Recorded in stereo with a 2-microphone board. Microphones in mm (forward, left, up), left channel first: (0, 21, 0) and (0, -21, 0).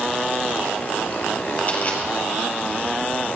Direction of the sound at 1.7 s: 45° left (ahead or behind).